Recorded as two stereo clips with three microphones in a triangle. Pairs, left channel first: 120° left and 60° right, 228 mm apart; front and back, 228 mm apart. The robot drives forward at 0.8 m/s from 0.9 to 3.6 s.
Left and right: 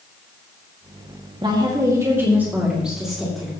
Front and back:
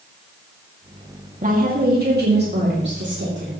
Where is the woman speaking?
130° right, 2 m; by 3.5 s 150° right, 3.5 m.